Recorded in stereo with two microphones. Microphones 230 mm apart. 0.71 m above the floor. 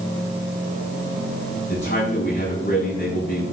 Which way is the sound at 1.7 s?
50° left (ahead or behind).